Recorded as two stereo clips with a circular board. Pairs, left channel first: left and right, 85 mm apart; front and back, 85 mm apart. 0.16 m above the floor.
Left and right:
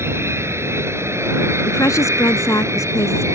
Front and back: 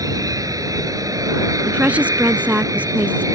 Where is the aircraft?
145° right; by 3.4 s 140° right.